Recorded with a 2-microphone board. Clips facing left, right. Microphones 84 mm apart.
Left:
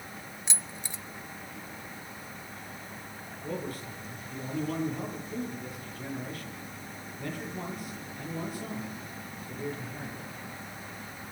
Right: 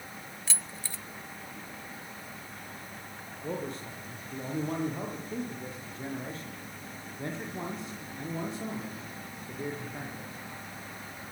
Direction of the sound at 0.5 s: 20° left (ahead or behind).